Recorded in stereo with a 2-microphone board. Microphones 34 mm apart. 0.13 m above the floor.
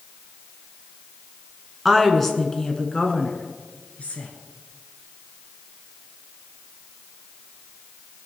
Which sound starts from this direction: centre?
A woman speaking, at 1.9 s.